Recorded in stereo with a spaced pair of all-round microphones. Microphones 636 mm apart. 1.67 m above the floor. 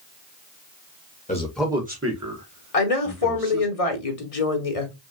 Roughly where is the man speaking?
Centre.